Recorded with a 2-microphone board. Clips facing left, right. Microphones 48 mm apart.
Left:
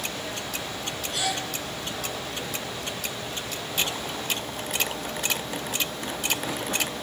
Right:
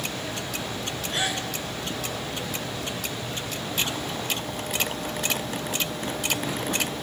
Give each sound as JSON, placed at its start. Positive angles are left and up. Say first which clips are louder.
{"t": 1.1, "sound": "a gasp", "louder": "right 1 dB", "side_deg": -35, "distance_m": 2.5}